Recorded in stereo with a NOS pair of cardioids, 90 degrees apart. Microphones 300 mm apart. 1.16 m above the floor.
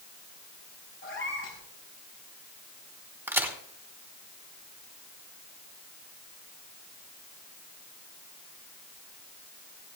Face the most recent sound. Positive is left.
turn(degrees=-5)